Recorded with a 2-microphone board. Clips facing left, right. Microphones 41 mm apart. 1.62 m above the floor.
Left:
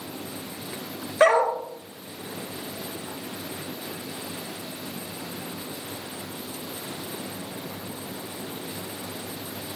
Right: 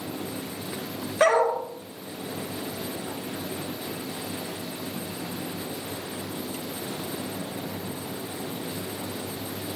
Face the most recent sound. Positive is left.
turn(degrees=15)  # may be behind; listen again after turning